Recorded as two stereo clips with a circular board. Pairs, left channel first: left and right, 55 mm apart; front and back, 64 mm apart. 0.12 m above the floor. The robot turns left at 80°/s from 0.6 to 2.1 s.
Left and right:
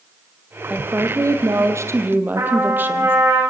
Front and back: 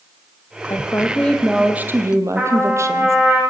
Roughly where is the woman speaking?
Ahead right.